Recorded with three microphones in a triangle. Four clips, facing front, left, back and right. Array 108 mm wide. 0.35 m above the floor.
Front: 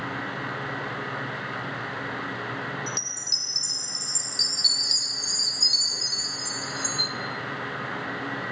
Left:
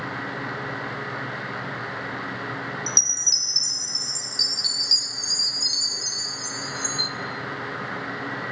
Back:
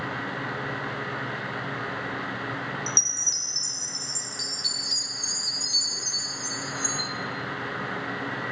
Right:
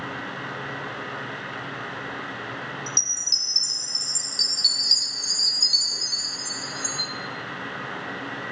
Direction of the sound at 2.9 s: 75° left.